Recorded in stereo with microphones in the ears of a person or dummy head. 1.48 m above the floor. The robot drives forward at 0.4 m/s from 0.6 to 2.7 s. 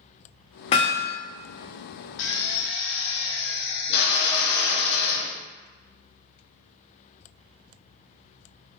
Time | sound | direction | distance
0.7 | hammering | 40° left (ahead or behind) | 0.7 m
2.2 | a drill | 70° left (ahead or behind) | 0.7 m